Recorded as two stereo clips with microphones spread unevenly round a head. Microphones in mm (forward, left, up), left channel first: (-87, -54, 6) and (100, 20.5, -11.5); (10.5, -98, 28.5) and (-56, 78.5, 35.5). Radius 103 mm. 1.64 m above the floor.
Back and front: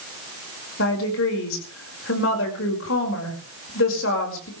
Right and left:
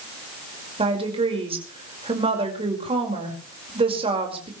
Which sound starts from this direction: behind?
A woman speaking, at 0.8 s.